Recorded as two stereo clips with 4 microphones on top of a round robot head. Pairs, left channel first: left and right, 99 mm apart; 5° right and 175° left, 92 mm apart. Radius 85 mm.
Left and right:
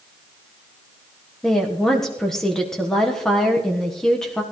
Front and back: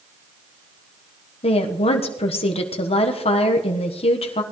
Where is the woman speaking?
5° left, 1.3 m.